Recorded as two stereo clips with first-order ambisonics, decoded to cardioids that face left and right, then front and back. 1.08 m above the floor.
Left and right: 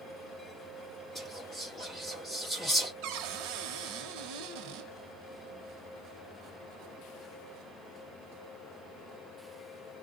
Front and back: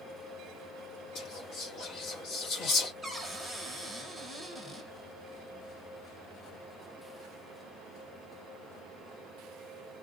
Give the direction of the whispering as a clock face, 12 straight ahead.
12 o'clock.